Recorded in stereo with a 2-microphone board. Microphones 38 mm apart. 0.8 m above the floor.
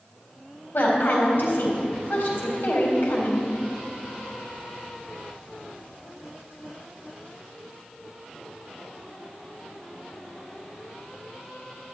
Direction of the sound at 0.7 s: 65° left (ahead or behind).